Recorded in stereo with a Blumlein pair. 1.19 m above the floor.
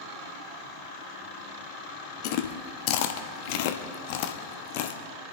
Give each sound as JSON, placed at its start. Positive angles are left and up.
{"t": 2.2, "sound": "chewing", "azimuth_deg": 45, "distance_m": 1.0}